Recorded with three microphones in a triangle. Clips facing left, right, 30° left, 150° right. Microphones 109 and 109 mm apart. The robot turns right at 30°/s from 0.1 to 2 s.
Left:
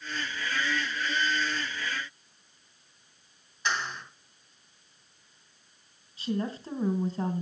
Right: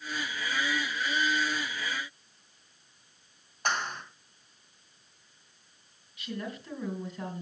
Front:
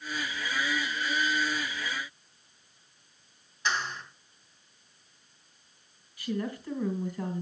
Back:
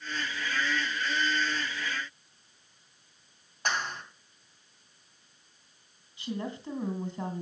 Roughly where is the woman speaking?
Behind left.